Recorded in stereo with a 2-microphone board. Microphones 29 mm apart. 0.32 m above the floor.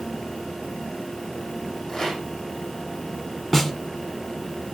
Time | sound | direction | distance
1.9 | a rattle | 10° left (ahead or behind) | 4.5 m
3.5 | a snare drum | 5° left (ahead or behind) | 1.5 m